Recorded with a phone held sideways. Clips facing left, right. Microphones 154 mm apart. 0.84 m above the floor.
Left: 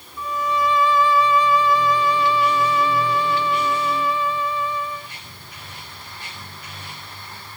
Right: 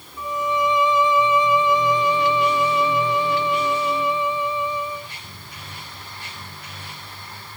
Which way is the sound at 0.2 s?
20° right (ahead or behind).